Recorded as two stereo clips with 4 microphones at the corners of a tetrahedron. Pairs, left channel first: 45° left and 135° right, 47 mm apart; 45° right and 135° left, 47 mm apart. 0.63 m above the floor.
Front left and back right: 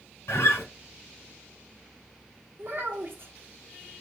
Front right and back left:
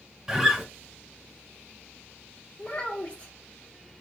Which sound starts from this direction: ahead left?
A guitar, at 0.3 s.